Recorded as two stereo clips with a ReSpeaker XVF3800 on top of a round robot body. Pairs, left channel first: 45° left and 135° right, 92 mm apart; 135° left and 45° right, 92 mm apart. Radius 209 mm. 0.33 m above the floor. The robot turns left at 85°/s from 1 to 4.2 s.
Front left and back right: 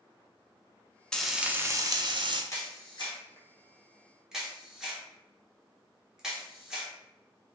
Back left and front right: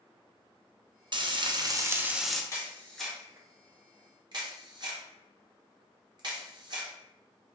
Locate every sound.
1.1 s frying: 35° right, 0.7 m; by 2.4 s 145° right, 0.7 m
2.5 s a camera shutter: 90° left, 1.3 m; by 6.9 s 55° right, 1.3 m